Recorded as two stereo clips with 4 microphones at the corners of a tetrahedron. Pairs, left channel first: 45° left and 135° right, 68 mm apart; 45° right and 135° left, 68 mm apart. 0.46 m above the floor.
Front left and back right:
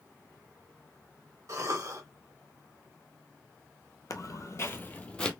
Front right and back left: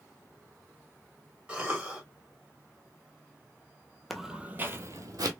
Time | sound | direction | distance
1.5 | a cough | 155° right | 1.9 m
4.1 | footsteps | 45° left | 0.8 m